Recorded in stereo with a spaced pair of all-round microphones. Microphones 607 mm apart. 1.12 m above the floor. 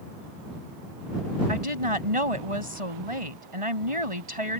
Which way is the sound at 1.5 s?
60° right (ahead or behind).